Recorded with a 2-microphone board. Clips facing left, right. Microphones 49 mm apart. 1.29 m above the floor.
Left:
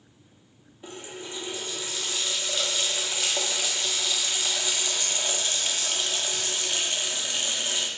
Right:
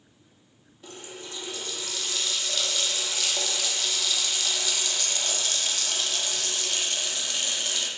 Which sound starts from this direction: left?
A running tap, at 0.8 s.